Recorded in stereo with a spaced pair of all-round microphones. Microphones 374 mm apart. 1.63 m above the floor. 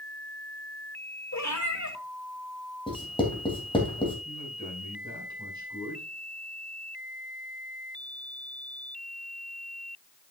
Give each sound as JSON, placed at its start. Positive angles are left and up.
{"t": 1.3, "sound": "a cat meowing", "side_deg": 50, "distance_m": 2.0}
{"t": 2.9, "sound": "writing", "side_deg": 15, "distance_m": 3.0}
{"t": 4.2, "sound": "a man speaking", "side_deg": -10, "distance_m": 6.0}